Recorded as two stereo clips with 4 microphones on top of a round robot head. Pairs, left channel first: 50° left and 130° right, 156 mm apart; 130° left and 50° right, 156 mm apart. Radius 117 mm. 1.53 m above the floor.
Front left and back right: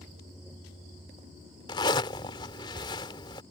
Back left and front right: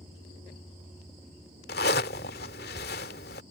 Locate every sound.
1.7 s a zipper: 110° left